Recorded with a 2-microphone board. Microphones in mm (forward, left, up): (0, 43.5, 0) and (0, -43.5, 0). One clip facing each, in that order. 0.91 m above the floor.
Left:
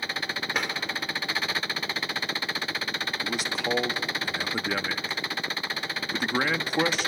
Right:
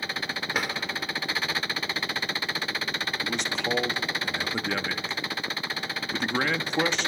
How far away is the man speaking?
About 1.0 m.